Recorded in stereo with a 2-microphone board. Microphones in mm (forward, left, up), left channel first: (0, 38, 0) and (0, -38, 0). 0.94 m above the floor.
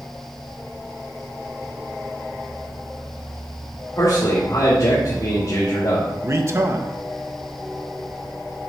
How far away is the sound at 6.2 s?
About 1.1 m.